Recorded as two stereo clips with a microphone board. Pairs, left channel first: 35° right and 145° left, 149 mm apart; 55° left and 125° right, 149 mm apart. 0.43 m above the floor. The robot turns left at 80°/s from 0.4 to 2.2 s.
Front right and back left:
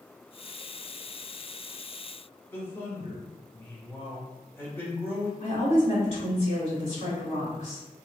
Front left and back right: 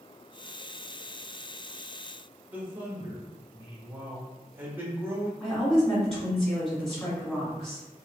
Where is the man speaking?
75° right, 1.0 m.